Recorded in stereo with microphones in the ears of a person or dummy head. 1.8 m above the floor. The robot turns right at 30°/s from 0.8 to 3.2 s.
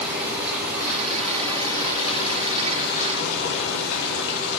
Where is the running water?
5° right, 3 m; by 4.6 s 65° left, 3 m.